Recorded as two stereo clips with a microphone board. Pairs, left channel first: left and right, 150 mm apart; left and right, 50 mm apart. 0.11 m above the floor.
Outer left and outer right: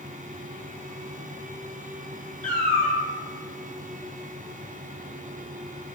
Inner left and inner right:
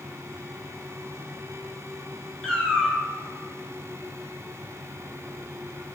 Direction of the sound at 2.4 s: 10° left (ahead or behind).